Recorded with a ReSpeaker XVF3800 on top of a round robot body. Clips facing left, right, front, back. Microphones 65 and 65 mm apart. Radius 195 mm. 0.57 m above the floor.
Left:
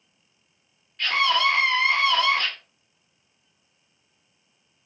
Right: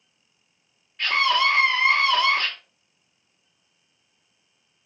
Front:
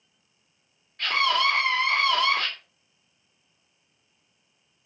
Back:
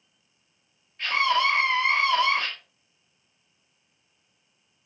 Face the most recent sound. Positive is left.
turn(degrees=-5)